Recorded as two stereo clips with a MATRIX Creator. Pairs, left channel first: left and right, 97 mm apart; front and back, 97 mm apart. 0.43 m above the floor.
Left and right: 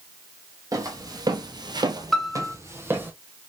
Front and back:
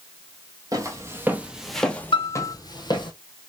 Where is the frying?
No frying in this recording.